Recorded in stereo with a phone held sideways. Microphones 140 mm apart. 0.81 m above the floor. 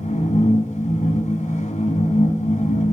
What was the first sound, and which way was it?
A machine running, 55° left (ahead or behind).